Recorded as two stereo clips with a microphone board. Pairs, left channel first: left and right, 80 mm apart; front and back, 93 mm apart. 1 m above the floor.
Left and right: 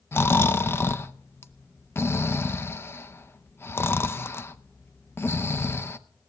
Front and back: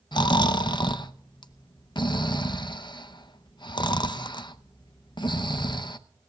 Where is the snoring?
30° left, 0.5 m.